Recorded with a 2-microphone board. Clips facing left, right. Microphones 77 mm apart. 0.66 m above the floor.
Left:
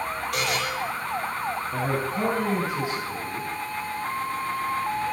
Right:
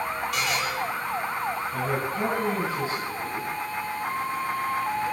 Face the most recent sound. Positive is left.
turn(degrees=85)